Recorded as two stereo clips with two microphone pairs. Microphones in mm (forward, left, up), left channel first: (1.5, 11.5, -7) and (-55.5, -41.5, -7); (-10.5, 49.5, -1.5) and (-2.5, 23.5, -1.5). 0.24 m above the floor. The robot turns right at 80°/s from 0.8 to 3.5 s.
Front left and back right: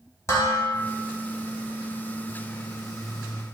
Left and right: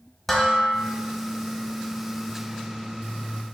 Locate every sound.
0.3 s dishes clattering: 45° left, 1.0 m